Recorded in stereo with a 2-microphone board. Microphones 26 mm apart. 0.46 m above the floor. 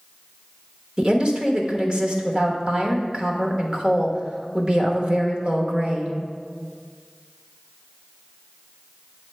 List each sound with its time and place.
1.0 s a woman speaking: 35° right (ahead or behind), 1.1 m